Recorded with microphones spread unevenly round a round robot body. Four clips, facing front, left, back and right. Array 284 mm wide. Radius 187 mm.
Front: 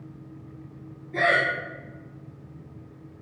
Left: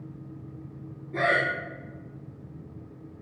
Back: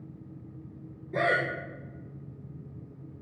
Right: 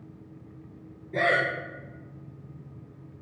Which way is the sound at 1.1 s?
125° right.